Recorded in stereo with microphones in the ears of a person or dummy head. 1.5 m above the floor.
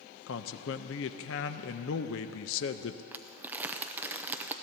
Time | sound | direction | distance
0.3 | a man speaking | 70° left (ahead or behind) | 0.7 m
3.1 | crumpling | 10° right (ahead or behind) | 0.6 m